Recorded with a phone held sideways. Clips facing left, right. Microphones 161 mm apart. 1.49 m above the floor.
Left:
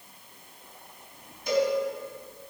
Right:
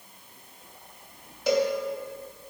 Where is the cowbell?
80° right, 2.5 m.